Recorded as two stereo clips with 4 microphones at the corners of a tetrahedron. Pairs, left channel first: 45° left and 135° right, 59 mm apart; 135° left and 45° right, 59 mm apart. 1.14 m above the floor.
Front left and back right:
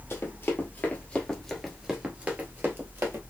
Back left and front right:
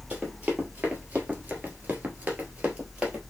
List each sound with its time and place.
0.1 s running footsteps: 20° left, 1.7 m; by 3.2 s 115° right, 1.8 m